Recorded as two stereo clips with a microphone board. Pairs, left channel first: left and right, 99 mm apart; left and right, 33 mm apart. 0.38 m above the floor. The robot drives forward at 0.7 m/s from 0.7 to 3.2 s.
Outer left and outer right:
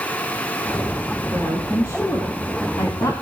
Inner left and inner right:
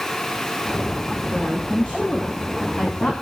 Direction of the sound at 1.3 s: 30° left (ahead or behind).